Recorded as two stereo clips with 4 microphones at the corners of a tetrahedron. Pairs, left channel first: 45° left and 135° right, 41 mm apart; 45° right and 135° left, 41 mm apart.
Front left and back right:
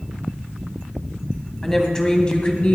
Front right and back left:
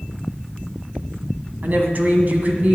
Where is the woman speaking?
120° left, 1.9 m; by 2.8 s 90° left, 2 m.